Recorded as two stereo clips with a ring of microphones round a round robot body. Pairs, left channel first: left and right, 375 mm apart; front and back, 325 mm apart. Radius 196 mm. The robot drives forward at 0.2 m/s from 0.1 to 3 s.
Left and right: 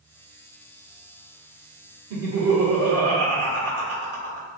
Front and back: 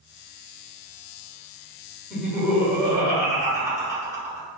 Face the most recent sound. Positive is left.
turn(degrees=-105)